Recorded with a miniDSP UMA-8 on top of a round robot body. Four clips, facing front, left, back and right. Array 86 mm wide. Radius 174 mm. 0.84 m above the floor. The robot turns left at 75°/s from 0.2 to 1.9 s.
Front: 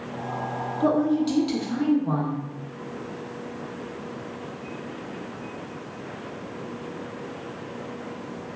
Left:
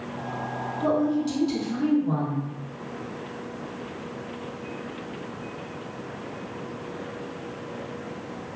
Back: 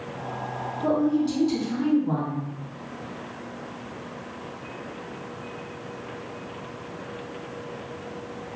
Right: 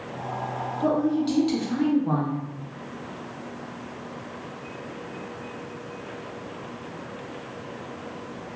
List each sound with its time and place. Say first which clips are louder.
0.8 s a woman speaking: right 1 dB, front 1 dB; 15° left, 0.9 m; by 2.4 s 70° right, 0.9 m